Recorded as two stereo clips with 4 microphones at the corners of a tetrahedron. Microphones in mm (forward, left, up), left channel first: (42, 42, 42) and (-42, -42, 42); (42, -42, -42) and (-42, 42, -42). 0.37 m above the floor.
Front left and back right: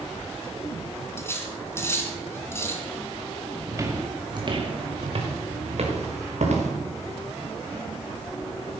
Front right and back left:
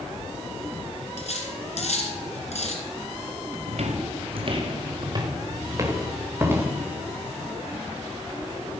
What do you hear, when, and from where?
1.2 s cutlery clinking: 25° right, 2.5 m
3.7 s footsteps: 160° left, 2 m; by 6.7 s 155° right, 4 m